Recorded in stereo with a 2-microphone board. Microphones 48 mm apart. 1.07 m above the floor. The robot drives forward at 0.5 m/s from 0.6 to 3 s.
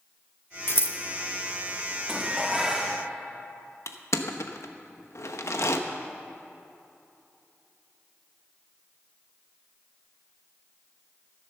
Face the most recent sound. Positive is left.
turn(degrees=65)  # may be behind; listen again after turning